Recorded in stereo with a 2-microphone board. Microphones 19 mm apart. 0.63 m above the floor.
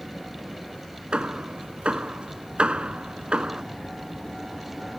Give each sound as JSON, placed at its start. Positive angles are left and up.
{"t": 1.1, "sound": "hammering", "side_deg": -65}